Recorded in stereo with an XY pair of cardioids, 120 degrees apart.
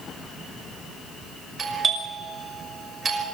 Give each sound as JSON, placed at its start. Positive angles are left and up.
{"t": 1.6, "sound": "a doorbell", "azimuth_deg": -30, "distance_m": 6.0}